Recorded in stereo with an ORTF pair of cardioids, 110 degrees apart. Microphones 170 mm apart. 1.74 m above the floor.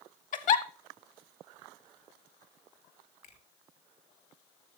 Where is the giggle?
50° left, 1.0 m.